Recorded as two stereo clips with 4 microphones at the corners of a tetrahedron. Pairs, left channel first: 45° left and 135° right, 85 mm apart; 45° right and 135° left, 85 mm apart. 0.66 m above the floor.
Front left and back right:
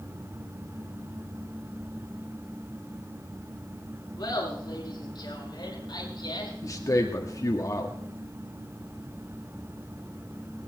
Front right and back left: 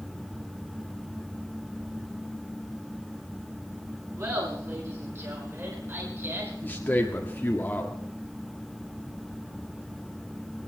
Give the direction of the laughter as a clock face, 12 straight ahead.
9 o'clock.